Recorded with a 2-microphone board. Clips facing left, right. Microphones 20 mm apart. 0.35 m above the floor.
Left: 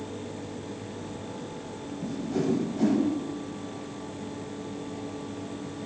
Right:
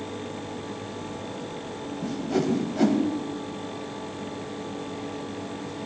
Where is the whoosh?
50° right (ahead or behind), 1.0 m.